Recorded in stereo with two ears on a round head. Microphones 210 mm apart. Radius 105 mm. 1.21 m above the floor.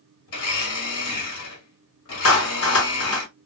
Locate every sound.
0.3 s a blender: 70° left (ahead or behind), 1.5 m
2.2 s a clap: 65° left (ahead or behind), 1.1 m